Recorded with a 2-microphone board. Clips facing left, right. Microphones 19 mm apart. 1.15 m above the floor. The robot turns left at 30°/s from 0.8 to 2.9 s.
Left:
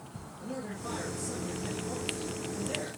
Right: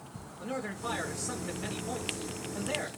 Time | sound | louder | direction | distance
0.4 | a man speaking | right 3 dB | 45° right | 2.5 m